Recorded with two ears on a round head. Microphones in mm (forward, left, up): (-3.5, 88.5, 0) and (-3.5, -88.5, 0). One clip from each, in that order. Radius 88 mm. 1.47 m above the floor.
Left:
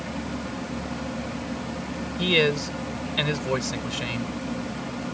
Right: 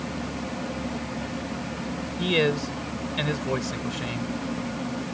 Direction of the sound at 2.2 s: 25° left (ahead or behind).